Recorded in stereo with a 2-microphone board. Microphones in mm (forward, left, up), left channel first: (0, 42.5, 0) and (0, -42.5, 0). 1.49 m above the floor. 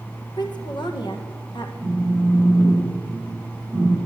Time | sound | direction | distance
0.4 | a woman speaking | 60° left (ahead or behind) | 1.2 m
1.8 | a phone buzzing | 5° right (ahead or behind) | 5 m